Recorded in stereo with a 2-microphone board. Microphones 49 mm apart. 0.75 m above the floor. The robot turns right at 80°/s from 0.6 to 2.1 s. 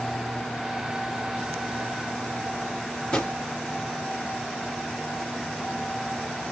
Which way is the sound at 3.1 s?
20° left (ahead or behind).